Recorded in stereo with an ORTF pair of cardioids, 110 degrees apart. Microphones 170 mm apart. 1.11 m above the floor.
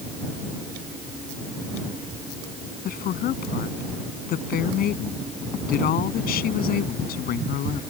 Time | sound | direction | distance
2.9 | a woman speaking | 65° left | ?